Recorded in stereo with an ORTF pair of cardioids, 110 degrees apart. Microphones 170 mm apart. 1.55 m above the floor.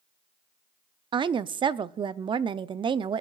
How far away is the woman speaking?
About 0.5 m.